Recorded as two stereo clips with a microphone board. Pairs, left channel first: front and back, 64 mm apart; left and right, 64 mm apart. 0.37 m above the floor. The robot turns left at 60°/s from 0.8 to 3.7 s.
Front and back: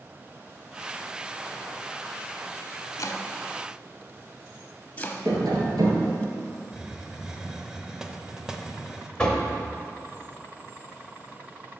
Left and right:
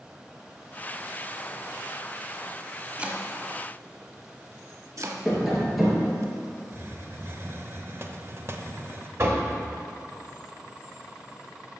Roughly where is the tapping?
Behind.